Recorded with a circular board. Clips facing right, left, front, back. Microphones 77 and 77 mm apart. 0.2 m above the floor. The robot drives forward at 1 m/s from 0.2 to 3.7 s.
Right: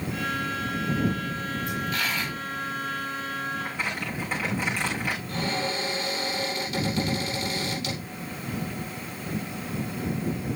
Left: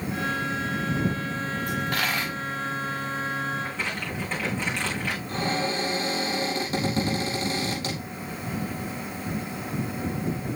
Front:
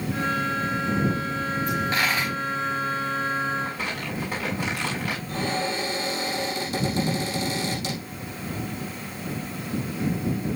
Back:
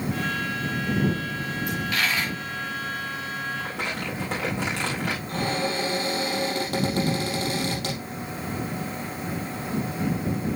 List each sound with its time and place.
1.7 s a dropped coin: 60° left, 4 m; by 2.3 s 70° left, 3.5 m
3.6 s crumpling: 170° right, 5 m
5.3 s a cupboard door: 145° left, 4.5 m